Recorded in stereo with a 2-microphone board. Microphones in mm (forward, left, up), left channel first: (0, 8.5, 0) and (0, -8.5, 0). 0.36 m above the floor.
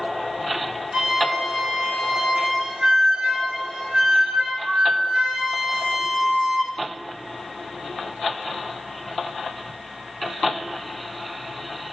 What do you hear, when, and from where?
0.9 s a flute: 80° right, 3 m